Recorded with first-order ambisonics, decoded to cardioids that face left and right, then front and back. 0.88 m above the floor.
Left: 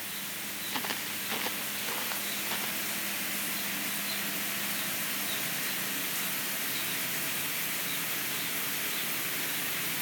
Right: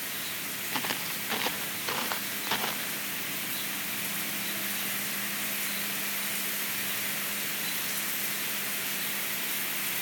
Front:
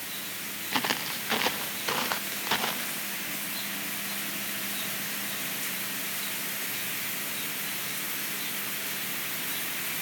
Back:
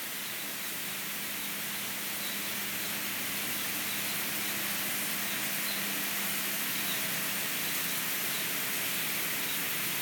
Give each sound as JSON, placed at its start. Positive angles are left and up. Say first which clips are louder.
{"t": 0.7, "sound": "footsteps", "louder": "right 2 dB, front 9 dB", "azimuth_deg": -10}